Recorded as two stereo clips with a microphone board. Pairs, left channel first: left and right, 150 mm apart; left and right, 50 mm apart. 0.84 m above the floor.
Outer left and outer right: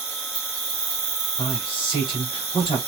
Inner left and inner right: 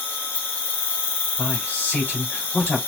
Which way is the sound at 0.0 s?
40° left (ahead or behind).